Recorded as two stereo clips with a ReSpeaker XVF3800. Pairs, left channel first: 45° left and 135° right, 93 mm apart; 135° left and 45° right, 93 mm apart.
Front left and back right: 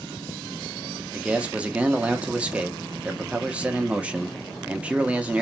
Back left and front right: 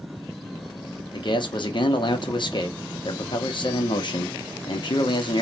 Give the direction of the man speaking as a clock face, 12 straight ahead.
7 o'clock.